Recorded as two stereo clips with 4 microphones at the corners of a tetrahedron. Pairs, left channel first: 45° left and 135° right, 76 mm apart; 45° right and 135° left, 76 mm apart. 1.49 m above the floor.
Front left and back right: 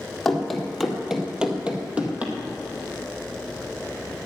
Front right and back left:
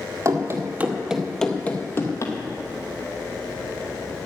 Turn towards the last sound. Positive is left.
turn(degrees=-70)